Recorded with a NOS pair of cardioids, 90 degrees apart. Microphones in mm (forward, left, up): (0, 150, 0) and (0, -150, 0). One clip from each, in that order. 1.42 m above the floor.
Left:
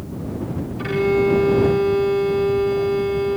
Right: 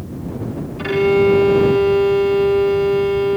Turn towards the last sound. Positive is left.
turn(degrees=-30)